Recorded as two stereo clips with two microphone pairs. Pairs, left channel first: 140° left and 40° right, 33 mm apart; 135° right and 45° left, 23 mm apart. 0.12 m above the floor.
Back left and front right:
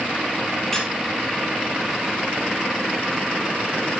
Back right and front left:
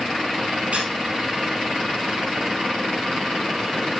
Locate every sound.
0.7 s a squeak: 65° left, 3.5 m